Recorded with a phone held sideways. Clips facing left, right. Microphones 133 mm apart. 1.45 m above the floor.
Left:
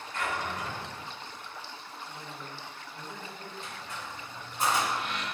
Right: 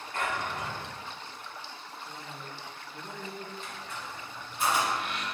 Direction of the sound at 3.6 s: 45° left (ahead or behind).